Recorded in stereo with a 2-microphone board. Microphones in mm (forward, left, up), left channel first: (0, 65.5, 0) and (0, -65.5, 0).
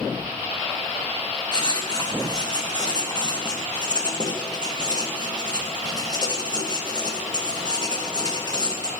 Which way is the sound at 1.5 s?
30° left (ahead or behind).